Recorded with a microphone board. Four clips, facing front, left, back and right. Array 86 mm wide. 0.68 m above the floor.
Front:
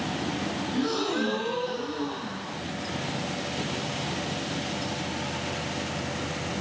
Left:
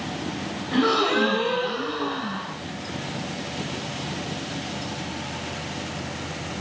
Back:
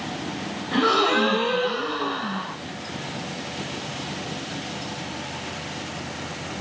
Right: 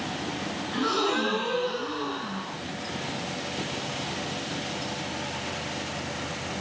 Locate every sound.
0.7 s a gasp: 155° left, 3 m